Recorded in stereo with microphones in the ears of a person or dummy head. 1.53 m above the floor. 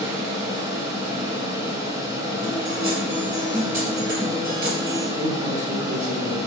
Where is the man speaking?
40° right (ahead or behind), 1.9 m.